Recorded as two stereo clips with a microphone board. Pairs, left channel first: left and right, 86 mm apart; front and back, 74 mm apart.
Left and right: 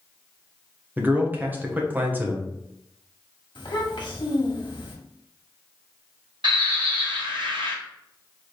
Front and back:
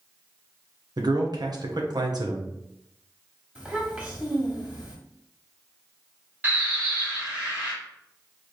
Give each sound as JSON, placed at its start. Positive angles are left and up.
{"t": 1.0, "sound": "a man speaking", "azimuth_deg": -160, "distance_m": 1.1}
{"t": 3.5, "sound": "a child speaking", "azimuth_deg": 110, "distance_m": 1.8}
{"t": 6.4, "sound": "a bird", "azimuth_deg": -115, "distance_m": 2.5}